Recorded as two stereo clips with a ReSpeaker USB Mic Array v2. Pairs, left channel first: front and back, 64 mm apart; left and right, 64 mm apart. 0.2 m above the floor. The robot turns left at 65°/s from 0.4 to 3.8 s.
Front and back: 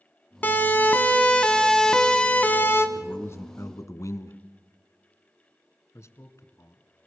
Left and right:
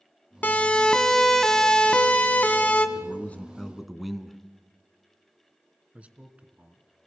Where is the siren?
45° left, 2 m; by 2.9 s 30° left, 2 m.